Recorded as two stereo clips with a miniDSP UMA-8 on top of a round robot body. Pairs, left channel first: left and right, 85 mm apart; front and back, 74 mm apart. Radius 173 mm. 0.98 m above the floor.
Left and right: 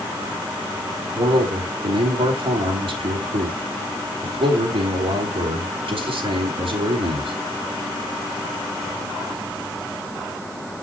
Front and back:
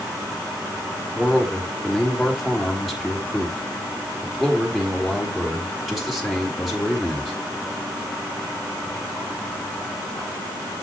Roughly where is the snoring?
I don't hear snoring.